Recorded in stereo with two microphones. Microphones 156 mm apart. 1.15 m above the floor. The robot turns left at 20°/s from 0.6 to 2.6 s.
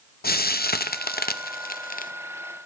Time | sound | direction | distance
0.2 | frying | 75° left (ahead or behind) | 0.6 m